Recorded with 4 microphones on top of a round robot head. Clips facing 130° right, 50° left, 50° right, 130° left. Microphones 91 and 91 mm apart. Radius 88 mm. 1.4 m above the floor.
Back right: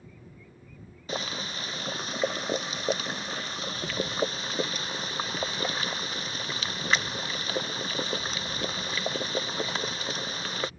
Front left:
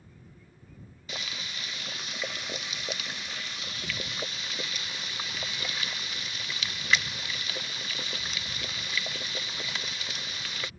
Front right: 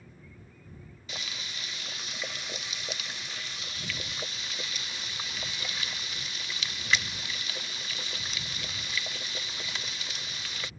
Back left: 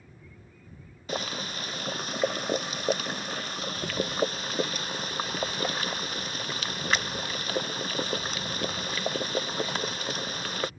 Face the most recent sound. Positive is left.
turn(degrees=175)